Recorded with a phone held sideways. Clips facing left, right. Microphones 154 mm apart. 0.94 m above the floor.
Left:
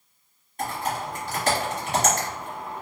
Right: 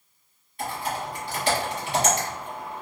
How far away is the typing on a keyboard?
About 1.1 m.